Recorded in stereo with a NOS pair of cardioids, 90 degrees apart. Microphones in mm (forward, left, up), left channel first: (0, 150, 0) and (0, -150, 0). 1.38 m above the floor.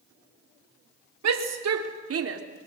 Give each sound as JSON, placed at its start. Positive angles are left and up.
{"t": 1.2, "sound": "a shout", "azimuth_deg": -55, "distance_m": 3.0}